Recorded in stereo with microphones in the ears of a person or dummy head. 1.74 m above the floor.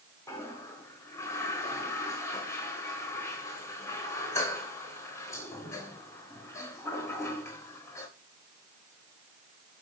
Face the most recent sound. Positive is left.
turn(degrees=20)  # may be behind; listen again after turning